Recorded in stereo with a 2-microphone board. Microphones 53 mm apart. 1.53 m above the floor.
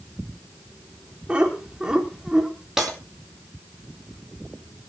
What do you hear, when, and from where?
1.3 s laughter: 20° right (ahead or behind), 4.5 m; by 2.5 s 10° right (ahead or behind), 4 m
2.8 s breaking glass: 10° right (ahead or behind), 8 m